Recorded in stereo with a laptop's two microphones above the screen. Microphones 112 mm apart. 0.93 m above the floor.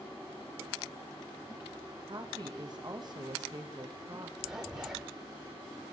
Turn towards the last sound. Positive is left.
turn(degrees=-5)  # may be behind; listen again after turning